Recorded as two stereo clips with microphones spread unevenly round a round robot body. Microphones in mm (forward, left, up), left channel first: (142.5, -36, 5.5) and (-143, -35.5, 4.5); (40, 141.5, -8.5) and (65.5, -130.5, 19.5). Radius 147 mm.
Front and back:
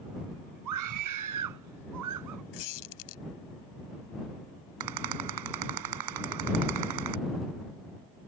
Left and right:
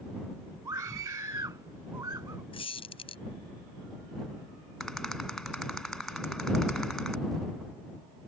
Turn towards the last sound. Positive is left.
turn(degrees=-175)